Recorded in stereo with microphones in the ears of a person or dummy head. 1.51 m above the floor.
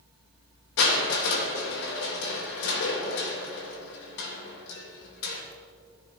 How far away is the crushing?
About 3 m.